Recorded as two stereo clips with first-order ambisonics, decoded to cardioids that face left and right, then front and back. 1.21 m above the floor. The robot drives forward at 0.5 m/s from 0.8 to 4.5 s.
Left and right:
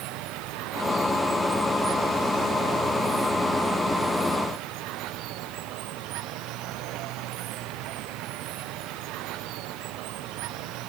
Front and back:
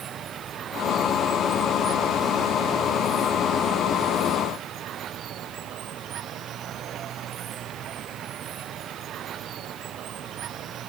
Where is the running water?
120° right; by 10.9 s 125° right.